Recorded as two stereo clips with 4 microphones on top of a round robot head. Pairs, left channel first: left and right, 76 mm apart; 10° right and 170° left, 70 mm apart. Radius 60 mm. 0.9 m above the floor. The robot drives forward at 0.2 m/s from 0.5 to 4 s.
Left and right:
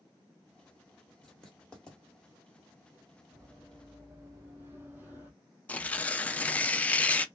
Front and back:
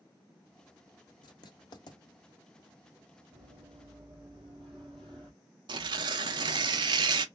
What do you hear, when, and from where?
1.2 s writing: 5° left, 0.9 m
3.3 s running footsteps: 140° right, 2 m; by 5.3 s 150° right, 1.3 m
5.7 s tearing paper: 160° left, 0.5 m